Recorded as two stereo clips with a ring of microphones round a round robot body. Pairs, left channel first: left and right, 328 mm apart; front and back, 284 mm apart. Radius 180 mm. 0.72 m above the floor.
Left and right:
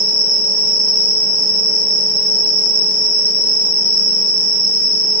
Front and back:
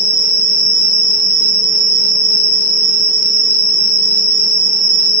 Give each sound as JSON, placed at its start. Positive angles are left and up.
{"t": 0.0, "sound": "an insect", "azimuth_deg": 65, "distance_m": 5.5}